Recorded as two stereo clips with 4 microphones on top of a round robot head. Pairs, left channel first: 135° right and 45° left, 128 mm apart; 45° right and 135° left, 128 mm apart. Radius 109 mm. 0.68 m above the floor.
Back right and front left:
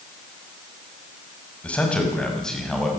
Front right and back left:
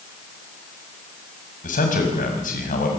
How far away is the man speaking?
About 6 m.